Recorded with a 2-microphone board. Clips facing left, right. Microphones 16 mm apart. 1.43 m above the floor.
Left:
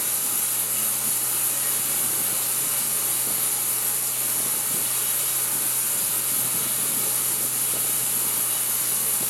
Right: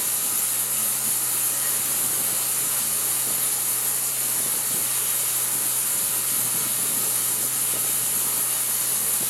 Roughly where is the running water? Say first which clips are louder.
Right 1 dB; centre.